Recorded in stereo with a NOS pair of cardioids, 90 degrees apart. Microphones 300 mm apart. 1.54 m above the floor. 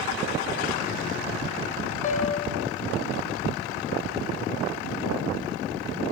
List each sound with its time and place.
2.0 s a piano: 25° left, 1.3 m